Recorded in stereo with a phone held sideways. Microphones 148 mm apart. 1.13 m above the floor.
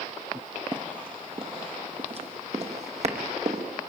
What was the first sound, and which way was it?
Running footsteps, 35° right (ahead or behind).